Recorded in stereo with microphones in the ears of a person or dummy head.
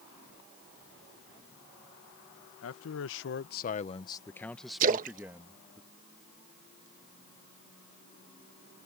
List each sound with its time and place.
2.6 s a man speaking: 85° left; by 5.8 s 15° right (ahead or behind)
4.8 s a splash: 45° right (ahead or behind)